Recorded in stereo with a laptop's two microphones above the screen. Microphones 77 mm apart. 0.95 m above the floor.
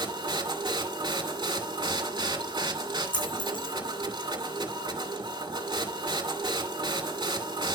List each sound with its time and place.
0.0 s a machine running: 85° right, 2.5 m
3.1 s a dropped coin: 75° left (ahead or behind), 5 m